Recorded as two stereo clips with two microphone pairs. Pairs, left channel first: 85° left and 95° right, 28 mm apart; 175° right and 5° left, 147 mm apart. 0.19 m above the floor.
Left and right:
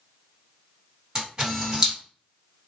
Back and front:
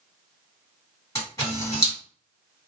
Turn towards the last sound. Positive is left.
turn(degrees=-125)